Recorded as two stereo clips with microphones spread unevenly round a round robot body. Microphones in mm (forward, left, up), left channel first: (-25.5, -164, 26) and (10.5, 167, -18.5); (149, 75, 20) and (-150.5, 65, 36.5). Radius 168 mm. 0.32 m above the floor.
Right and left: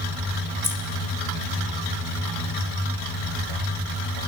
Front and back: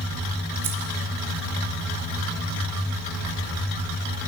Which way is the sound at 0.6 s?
165° left.